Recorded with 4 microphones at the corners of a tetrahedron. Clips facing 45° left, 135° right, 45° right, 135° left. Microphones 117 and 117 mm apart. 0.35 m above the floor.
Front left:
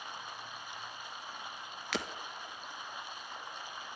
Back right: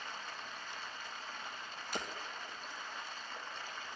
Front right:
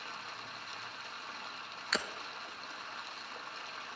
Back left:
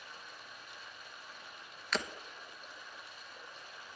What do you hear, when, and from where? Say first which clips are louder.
0.0 s running water: front left 1 dB, front right 6 dB; 30° right, 1.0 m
1.9 s breaking glass: front left 4 dB, back left 1 dB; 45° left, 1.0 m